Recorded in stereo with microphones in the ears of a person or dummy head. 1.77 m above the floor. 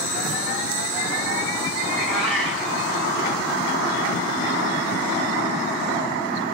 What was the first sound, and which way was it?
A cat meowing, 5° right (ahead or behind).